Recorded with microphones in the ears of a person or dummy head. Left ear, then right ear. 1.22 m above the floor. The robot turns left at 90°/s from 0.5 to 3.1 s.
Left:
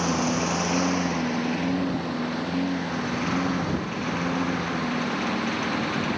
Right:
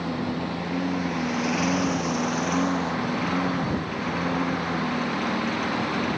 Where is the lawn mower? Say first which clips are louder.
Left 5 dB; 65° left (ahead or behind); by 6.2 s centre (ahead or behind).